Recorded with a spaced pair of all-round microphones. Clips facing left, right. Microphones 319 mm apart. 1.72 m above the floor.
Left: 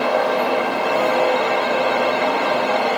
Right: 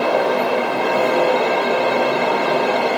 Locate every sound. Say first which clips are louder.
0.0 s a fan: right 2 dB; 50° right (ahead or behind), 1.1 m